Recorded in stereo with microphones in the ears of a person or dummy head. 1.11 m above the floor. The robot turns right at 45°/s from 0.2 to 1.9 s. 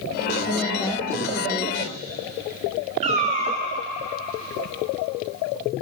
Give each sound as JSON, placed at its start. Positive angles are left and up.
{"t": 0.5, "sound": "a woman speaking", "azimuth_deg": 170, "distance_m": 0.8}
{"t": 3.0, "sound": "a cat meowing", "side_deg": -35, "distance_m": 0.6}